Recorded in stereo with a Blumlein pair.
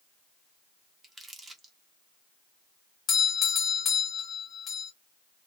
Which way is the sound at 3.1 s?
25° left.